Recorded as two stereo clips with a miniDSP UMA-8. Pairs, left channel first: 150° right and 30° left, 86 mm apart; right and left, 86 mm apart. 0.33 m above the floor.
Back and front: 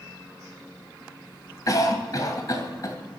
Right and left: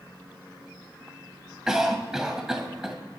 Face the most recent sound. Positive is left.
turn(degrees=175)